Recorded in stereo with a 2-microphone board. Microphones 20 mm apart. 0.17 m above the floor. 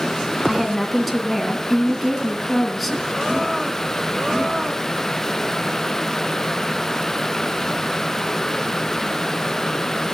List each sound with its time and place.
0.5 s a woman speaking: 5° left (ahead or behind), 1.9 m